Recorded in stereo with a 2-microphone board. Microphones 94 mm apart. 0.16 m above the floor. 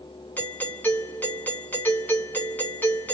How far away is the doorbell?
About 1.5 m.